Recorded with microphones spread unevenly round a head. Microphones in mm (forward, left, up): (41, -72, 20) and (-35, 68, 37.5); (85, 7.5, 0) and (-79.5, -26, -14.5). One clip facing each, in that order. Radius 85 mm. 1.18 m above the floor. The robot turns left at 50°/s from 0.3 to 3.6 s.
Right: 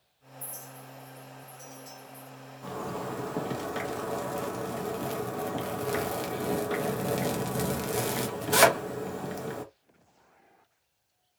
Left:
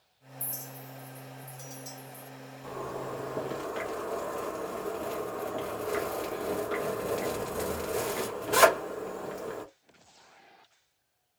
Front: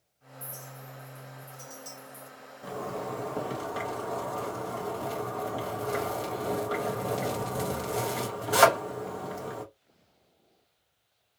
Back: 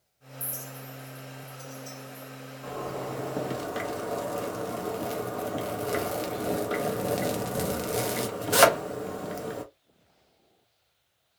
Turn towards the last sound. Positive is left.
turn(degrees=-105)